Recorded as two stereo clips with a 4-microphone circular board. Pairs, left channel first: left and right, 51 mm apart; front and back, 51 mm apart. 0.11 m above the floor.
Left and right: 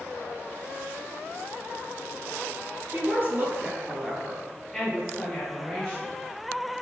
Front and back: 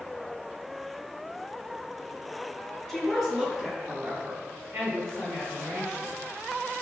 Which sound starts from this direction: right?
A woman speaking, at 2.9 s.